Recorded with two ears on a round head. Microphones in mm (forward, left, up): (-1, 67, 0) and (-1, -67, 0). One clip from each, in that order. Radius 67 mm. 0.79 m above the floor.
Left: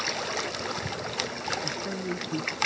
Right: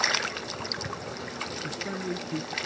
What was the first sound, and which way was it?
A man speaking, 20° right (ahead or behind).